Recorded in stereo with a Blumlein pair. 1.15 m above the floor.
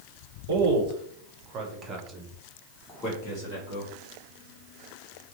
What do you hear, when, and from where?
0.5 s a man speaking: 60° right, 1.3 m; by 3.9 s 55° left, 1.2 m